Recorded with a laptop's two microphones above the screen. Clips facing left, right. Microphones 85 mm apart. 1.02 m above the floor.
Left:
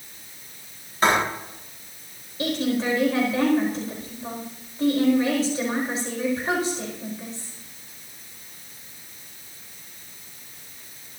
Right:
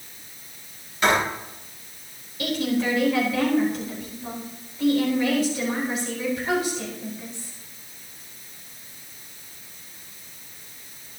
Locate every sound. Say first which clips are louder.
1.0 s writing: left 1 dB; 35° left (ahead or behind), 6.5 m
2.4 s a woman speaking: even; 30° left (ahead or behind), 4.5 m